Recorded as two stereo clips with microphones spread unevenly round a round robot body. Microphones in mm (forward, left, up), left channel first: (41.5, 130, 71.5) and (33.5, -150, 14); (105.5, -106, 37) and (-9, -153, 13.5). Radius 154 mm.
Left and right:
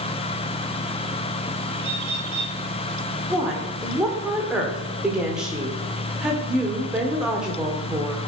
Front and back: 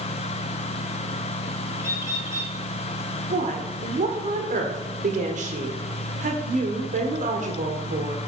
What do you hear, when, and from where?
1.8 s a bird: 95° right, 4 m
3.3 s a woman speaking: 175° right, 1.8 m